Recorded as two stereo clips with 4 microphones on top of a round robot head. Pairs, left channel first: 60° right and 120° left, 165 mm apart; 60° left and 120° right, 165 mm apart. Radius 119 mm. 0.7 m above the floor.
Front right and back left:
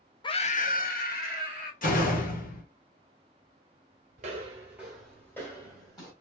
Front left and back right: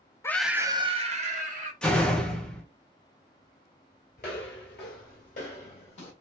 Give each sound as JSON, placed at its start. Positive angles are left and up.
{"t": 0.2, "sound": "a scream", "azimuth_deg": -5, "distance_m": 0.6}
{"t": 1.8, "sound": "a door slam", "azimuth_deg": -25, "distance_m": 1.2}
{"t": 4.2, "sound": "footsteps", "azimuth_deg": 90, "distance_m": 0.9}